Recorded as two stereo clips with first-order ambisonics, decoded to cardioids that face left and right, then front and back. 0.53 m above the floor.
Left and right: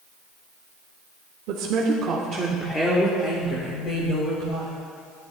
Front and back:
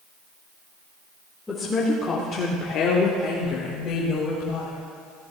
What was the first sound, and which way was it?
A woman speaking, 80° right.